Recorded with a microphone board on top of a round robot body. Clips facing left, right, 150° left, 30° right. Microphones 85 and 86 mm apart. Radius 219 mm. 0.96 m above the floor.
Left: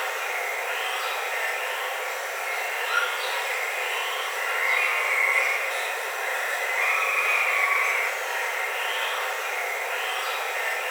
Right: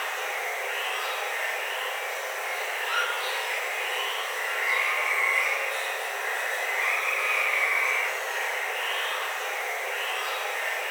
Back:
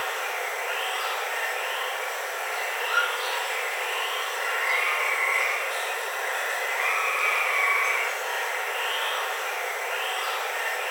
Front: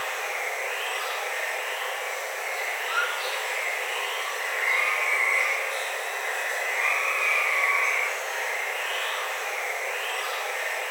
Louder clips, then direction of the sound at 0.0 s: Left 2 dB, back 1 dB; 110° left.